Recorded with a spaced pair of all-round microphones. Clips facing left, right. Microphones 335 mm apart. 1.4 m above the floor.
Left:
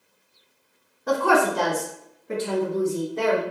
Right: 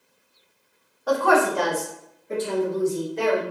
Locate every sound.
1.1 s a woman speaking: 30° left (ahead or behind), 0.7 m; by 3.4 s 60° left (ahead or behind), 1.1 m